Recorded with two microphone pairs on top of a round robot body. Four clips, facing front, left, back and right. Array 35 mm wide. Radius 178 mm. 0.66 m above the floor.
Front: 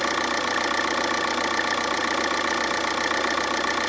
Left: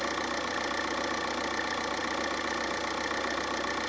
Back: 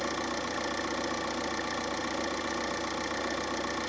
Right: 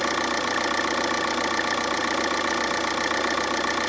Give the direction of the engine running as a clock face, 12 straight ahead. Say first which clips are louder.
Right 7 dB, front 9 dB; 1 o'clock.